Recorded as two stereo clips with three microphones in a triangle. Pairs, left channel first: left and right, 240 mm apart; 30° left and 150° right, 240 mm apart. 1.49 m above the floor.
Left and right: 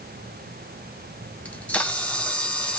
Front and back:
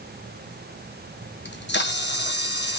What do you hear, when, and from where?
1.4 s a camera shutter: 5° left, 0.7 m